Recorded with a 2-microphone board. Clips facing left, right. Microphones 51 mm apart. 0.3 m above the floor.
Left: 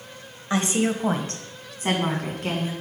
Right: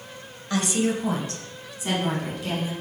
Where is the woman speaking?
30° left (ahead or behind), 1.0 m; by 2.7 s 50° left (ahead or behind), 2.5 m.